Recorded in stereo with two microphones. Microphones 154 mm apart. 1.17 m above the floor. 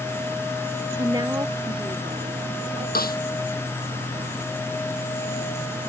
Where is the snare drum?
80° left.